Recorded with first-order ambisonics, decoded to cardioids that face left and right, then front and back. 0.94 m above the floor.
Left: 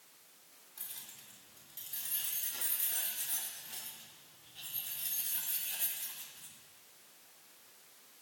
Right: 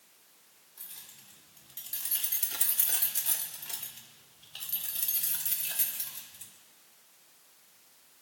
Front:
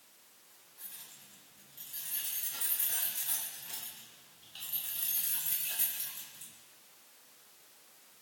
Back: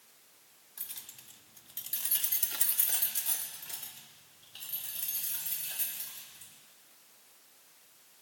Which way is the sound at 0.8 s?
170° left.